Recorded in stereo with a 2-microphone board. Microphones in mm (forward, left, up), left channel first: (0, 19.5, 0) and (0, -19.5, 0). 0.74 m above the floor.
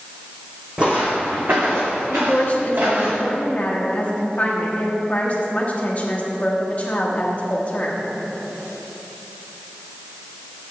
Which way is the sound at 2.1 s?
35° left (ahead or behind).